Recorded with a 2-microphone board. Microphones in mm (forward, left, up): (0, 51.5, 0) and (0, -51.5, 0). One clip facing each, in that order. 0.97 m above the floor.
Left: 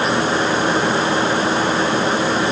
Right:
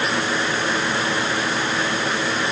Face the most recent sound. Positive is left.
No sound to turn to.